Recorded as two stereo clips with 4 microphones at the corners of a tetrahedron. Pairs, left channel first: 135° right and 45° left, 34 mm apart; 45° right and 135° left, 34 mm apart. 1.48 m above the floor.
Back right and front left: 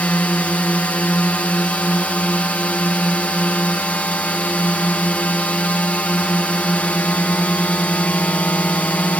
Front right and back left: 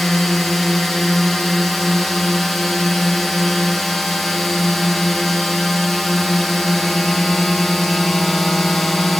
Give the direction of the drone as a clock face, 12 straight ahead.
4 o'clock.